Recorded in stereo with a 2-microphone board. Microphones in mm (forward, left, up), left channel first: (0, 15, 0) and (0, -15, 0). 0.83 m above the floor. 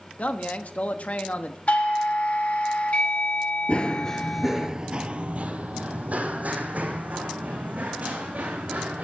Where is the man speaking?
55° left (ahead or behind), 1.1 m.